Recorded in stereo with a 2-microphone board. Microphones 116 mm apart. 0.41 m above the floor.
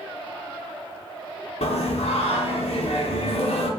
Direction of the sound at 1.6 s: 70° left (ahead or behind).